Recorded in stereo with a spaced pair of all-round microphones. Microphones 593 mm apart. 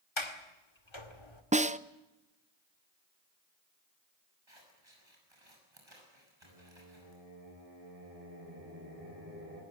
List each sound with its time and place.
0.2 s a sliding door: 50° left (ahead or behind), 1.9 m
1.5 s a snare drum: 15° right (ahead or behind), 0.6 m
4.5 s scissors: 50° right (ahead or behind), 7 m
6.4 s singing: 80° right, 8 m